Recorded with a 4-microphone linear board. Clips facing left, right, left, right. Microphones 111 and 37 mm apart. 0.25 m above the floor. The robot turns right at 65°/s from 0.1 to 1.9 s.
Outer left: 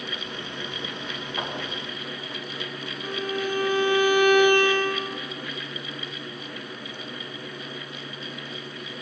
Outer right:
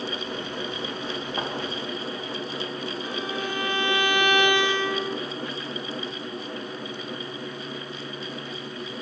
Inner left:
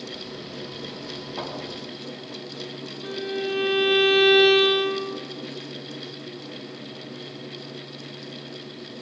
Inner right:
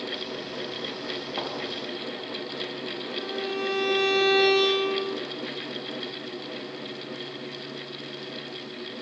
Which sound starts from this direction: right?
A thud, at 1.4 s.